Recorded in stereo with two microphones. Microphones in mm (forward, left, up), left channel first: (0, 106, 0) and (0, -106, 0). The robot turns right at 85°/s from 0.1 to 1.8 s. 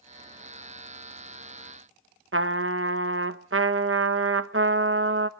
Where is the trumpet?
80° right, 0.8 m.